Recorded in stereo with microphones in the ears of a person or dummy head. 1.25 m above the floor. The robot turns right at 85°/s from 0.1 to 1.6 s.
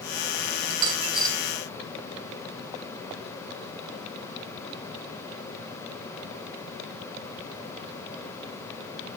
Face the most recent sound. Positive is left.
turn(degrees=40)